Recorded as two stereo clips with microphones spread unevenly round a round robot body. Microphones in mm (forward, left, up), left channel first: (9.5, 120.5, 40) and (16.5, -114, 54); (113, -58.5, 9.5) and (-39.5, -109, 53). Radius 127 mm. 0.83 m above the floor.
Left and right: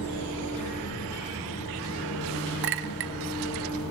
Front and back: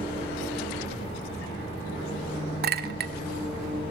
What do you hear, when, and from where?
0.0 s an engine running: 90° left, 5.5 m
2.6 s a clink: 135° right, 0.7 m